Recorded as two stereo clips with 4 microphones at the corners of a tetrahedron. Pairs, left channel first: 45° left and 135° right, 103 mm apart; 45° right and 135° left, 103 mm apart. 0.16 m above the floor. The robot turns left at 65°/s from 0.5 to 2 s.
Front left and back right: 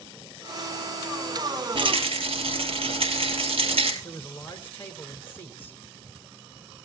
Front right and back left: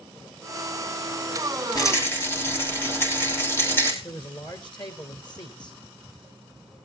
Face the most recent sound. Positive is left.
turn(degrees=-20)